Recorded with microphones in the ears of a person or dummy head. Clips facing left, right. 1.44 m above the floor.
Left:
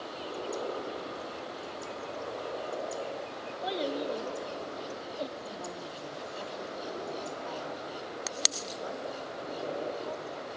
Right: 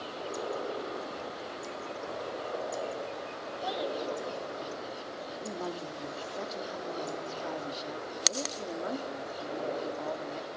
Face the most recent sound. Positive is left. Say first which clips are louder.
# right 3 dB
turn(degrees=-55)  # may be behind; listen again after turning